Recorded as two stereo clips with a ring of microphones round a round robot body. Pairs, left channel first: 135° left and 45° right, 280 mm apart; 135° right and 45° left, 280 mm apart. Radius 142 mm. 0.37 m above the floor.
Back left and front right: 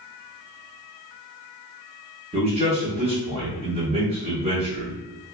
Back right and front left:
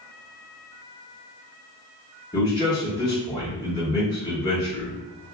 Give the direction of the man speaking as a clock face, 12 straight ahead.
3 o'clock.